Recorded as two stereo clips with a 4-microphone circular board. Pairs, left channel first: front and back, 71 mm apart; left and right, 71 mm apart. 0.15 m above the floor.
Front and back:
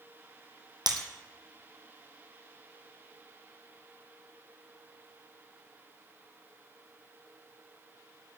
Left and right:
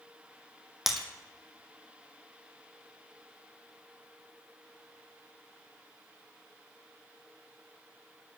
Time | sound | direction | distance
0.9 | breaking glass | straight behind | 1.3 m